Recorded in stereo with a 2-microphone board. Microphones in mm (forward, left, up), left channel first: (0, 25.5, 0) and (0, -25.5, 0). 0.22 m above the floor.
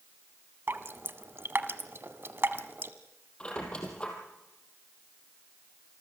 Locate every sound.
0.7 s dripping: 45° right (ahead or behind), 1.1 m
3.4 s a squeak: 20° left (ahead or behind), 3.5 m